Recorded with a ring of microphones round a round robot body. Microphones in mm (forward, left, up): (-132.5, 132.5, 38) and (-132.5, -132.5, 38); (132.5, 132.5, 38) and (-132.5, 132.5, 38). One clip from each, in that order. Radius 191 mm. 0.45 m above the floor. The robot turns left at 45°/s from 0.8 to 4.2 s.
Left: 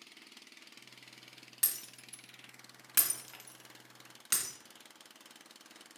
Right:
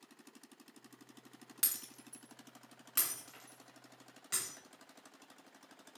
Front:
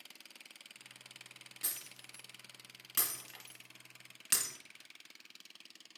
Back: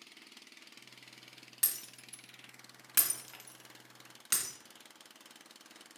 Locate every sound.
1.6 s breaking glass: 150° right, 2 m; by 4.5 s 95° left, 2 m